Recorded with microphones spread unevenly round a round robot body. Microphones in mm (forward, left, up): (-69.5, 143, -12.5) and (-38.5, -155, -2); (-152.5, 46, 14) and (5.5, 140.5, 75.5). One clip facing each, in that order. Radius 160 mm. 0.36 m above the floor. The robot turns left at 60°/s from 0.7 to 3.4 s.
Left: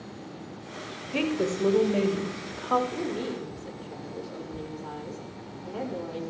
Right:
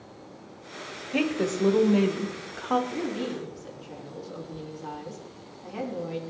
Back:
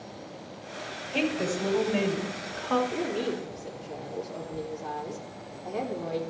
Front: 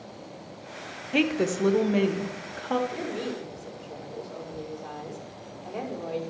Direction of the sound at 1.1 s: 30° left.